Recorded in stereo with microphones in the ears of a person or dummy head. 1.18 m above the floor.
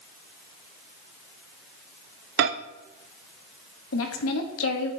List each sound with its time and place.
2.4 s a microwave: 60° right (ahead or behind), 0.5 m
3.9 s a woman speaking: 80° left, 1.3 m